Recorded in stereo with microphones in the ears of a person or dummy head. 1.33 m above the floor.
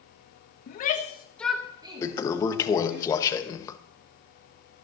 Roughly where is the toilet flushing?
Left.